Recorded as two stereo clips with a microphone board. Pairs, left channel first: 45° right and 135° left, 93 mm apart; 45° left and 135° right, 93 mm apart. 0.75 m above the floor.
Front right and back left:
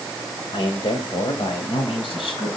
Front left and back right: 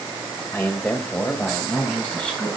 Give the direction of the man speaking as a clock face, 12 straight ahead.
1 o'clock.